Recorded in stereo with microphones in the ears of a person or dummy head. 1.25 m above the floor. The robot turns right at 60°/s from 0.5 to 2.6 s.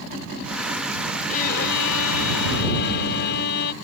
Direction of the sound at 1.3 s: 40° left.